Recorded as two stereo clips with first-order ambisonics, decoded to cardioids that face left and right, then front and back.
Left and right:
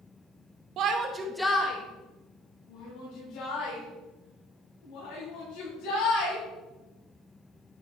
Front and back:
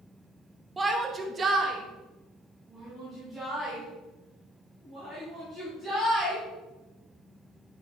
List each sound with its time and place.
0.8 s a shout: 105° right, 1.3 m; by 6.4 s 95° left, 7.5 m